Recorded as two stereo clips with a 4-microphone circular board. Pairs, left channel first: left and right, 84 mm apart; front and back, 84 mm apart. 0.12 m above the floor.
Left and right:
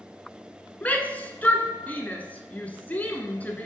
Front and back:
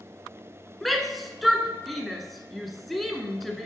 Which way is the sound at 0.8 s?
90° left.